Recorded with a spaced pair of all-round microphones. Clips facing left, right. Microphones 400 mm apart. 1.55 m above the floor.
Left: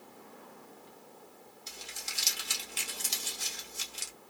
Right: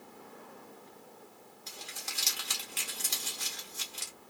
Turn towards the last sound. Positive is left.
turn(degrees=-70)  # may be behind; listen again after turning